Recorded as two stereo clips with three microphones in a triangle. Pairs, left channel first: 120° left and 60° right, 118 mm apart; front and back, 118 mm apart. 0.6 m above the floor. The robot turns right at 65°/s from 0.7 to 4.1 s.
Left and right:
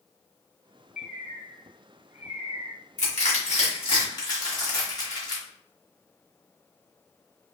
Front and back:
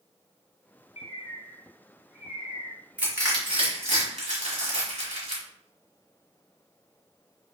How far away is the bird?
About 2 m.